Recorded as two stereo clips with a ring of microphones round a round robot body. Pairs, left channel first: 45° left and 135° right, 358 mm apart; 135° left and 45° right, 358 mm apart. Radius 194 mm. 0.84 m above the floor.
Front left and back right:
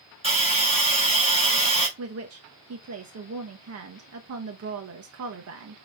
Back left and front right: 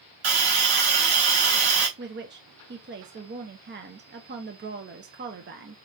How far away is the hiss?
About 4.5 m.